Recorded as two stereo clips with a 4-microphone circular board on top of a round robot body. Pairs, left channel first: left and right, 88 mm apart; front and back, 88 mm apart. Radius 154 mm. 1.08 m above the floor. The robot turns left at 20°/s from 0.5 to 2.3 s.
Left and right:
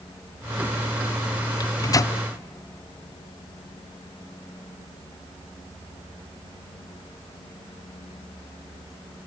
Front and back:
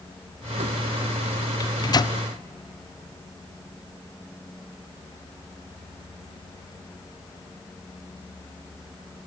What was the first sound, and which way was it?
A microwave, 50° left.